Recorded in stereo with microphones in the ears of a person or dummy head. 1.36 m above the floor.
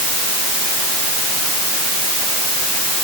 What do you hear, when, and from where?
Only background noise.